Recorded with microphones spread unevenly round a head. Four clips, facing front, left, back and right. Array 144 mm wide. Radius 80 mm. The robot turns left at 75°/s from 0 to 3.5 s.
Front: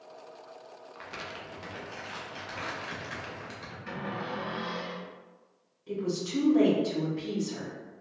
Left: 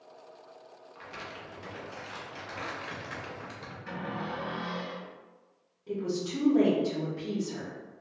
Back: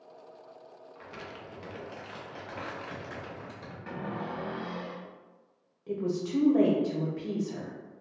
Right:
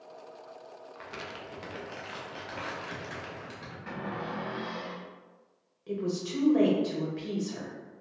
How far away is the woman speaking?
About 1.0 m.